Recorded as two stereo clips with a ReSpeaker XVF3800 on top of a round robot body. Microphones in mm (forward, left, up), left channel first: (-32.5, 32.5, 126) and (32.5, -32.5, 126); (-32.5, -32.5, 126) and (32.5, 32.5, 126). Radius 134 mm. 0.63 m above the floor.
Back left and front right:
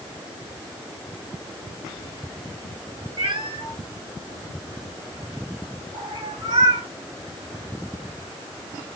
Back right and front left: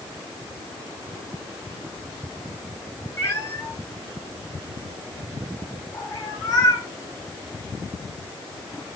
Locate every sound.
3.2 s a cat meowing: 80° right, 6 m; by 6.9 s 90° right, 4.5 m